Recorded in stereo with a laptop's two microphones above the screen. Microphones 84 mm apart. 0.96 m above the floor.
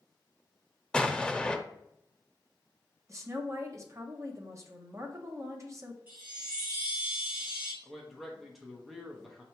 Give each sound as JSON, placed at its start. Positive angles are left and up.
{"t": 0.9, "sound": "an explosion", "side_deg": 10, "distance_m": 0.6}
{"t": 3.1, "sound": "a woman speaking", "side_deg": -35, "distance_m": 0.8}
{"t": 6.1, "sound": "a chime", "side_deg": -20, "distance_m": 2.5}
{"t": 7.8, "sound": "a man speaking", "side_deg": 0, "distance_m": 0.7}